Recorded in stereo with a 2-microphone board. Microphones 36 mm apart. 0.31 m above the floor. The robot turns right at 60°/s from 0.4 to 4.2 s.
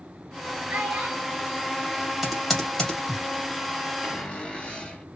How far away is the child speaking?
About 1.9 m.